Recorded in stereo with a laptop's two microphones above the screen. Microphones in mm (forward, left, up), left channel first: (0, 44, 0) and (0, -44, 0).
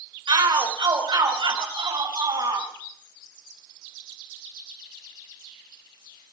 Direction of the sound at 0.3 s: 65° right (ahead or behind).